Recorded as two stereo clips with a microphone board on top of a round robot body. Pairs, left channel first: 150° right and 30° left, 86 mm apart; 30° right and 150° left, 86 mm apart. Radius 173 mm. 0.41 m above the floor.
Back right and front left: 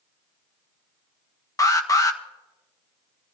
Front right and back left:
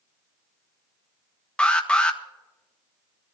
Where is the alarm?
105° right, 1.4 m.